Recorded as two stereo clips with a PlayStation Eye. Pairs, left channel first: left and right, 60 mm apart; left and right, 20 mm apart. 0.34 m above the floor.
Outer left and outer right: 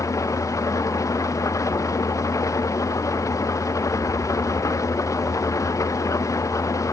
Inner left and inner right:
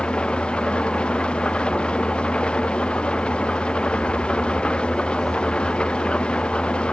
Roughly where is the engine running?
Left.